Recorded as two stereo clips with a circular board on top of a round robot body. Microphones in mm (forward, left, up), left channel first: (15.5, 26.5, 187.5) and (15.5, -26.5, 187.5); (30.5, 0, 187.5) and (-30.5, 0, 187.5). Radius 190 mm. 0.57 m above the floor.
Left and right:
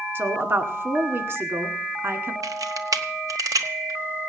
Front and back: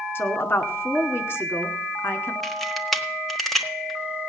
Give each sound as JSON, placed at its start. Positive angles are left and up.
{"t": 0.1, "sound": "a woman speaking", "azimuth_deg": -50, "distance_m": 2.0}
{"t": 2.4, "sound": "a camera shutter", "azimuth_deg": -90, "distance_m": 1.3}